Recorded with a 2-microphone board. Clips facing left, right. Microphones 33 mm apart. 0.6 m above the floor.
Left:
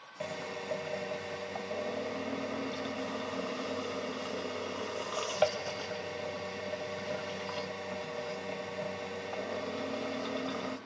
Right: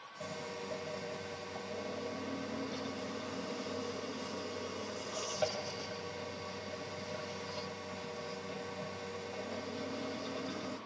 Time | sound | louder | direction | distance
0.2 | a drill | left 4 dB | 40° left (ahead or behind) | 1.4 m